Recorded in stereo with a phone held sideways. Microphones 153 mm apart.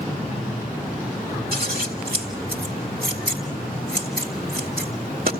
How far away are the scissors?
About 1.9 m.